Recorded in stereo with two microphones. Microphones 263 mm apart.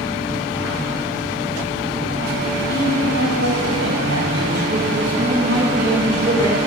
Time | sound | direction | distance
2.7 | a man speaking | 65° right (ahead or behind) | 2.5 m